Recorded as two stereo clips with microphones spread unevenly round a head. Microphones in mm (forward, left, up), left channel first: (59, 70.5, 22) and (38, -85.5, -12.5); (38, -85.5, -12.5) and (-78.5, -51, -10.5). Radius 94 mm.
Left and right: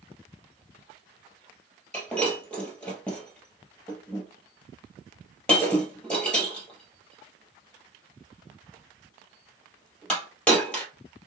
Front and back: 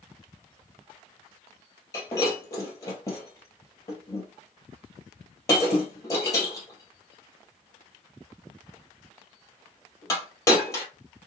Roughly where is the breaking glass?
Ahead left.